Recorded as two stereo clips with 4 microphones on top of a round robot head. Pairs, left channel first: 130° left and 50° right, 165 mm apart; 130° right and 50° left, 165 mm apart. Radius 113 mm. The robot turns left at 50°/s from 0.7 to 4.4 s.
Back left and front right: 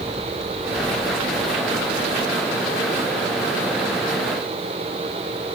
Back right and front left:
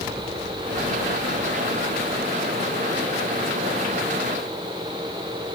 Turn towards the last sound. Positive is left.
No sound to turn to.